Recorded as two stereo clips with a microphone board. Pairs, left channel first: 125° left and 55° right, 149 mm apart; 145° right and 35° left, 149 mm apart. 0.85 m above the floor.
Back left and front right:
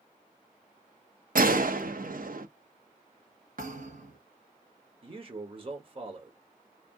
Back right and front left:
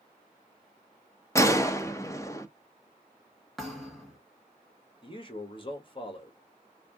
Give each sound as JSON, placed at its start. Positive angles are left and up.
{"t": 1.4, "sound": "a gunshot", "azimuth_deg": -75, "distance_m": 0.7}
{"t": 3.6, "sound": "a thud", "azimuth_deg": -55, "distance_m": 1.8}
{"t": 5.0, "sound": "a man speaking", "azimuth_deg": -100, "distance_m": 1.6}